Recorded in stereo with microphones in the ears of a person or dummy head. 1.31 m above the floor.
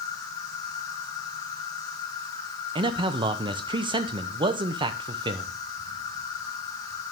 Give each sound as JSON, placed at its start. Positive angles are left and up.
{"t": 0.0, "sound": "an insect", "side_deg": 20, "distance_m": 1.2}
{"t": 2.8, "sound": "a man speaking", "side_deg": -25, "distance_m": 0.7}